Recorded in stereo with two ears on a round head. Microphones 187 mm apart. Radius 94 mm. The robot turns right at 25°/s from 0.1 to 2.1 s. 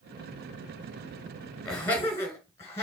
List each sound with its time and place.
1.6 s laughter: 5° left (ahead or behind), 2.5 m; by 2.8 s 15° left (ahead or behind), 2.5 m